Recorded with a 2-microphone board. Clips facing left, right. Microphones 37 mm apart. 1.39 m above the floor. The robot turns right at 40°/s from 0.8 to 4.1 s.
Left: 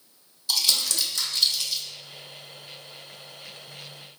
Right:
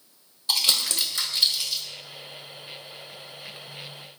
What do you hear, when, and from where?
0.5 s crumpling: 40° right (ahead or behind), 1.7 m; by 1.8 s 10° right (ahead or behind), 1.7 m